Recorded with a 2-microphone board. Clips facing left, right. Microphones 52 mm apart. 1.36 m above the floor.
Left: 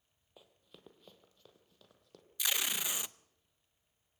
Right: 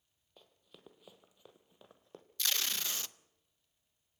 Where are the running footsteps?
10° left (ahead or behind), 1.7 m; by 2.2 s 30° right (ahead or behind), 2 m.